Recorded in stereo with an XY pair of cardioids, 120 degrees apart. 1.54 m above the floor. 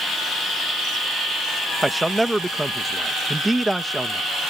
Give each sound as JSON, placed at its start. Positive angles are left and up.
{"t": 1.8, "sound": "a man speaking", "azimuth_deg": -5}